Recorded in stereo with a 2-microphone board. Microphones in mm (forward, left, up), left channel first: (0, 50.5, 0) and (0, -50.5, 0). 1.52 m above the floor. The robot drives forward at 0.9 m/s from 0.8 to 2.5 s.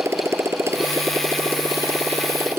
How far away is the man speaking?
No man speaking in this recording.